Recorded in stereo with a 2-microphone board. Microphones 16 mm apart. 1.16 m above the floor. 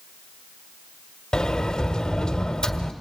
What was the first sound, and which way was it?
A sliding door, 50° left (ahead or behind).